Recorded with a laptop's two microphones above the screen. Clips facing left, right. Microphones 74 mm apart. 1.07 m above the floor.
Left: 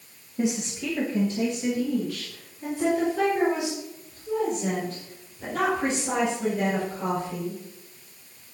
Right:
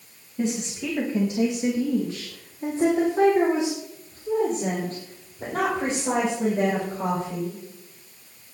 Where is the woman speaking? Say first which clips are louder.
Even; 10° left (ahead or behind), 1.2 m; by 7.6 s 50° right (ahead or behind), 6.5 m.